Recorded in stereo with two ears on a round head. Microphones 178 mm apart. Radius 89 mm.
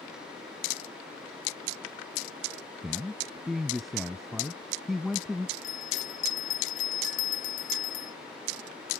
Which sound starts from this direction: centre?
A man speaking, at 2.8 s.